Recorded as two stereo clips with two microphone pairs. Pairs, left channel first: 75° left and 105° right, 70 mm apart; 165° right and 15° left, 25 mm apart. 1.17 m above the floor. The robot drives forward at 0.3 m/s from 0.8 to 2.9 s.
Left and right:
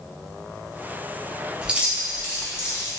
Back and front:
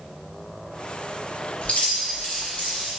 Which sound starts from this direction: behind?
Keys jangling, at 1.6 s.